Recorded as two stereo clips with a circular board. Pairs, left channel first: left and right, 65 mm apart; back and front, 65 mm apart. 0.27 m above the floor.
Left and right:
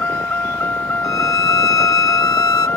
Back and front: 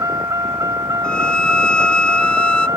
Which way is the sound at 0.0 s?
30° left.